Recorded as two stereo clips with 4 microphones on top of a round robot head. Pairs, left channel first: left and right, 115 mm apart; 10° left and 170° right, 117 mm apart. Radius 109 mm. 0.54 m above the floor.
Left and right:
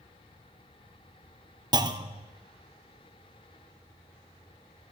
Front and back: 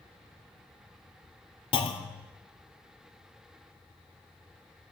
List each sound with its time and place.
1.7 s a clunk: 35° right, 0.6 m